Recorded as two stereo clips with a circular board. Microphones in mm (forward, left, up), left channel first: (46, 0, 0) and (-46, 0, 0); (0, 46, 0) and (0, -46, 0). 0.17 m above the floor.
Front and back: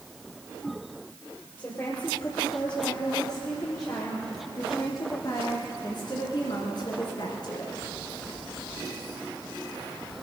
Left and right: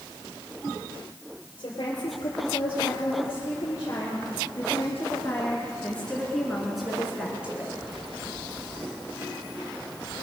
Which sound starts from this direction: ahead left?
A woman speaking, at 1.6 s.